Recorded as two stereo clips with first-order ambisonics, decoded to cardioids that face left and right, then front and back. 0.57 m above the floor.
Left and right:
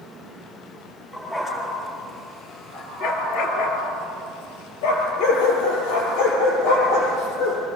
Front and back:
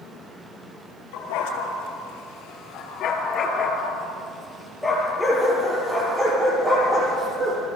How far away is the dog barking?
About 5 m.